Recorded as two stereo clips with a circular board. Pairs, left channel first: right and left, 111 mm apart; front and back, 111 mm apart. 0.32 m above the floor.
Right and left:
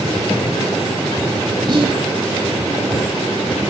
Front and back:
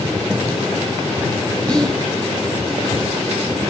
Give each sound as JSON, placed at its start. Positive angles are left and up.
{"t": 1.7, "sound": "whispering", "azimuth_deg": 80, "distance_m": 1.6}